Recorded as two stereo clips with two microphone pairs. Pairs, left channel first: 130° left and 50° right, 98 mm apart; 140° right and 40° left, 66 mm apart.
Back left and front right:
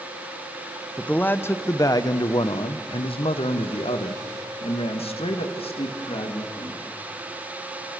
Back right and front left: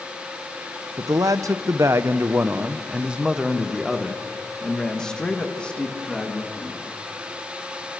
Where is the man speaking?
50° left, 1.2 m; by 6.8 s 150° left, 3 m.